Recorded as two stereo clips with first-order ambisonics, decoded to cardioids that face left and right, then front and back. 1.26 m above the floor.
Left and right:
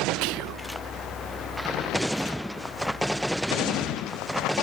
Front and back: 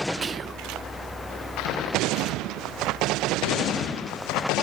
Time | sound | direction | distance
0.2 | whispering | 110° right | 0.5 m